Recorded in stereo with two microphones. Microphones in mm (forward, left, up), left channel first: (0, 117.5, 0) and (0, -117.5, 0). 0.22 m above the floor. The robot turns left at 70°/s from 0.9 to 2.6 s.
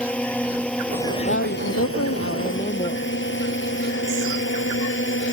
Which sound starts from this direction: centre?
A drone, at 0.0 s.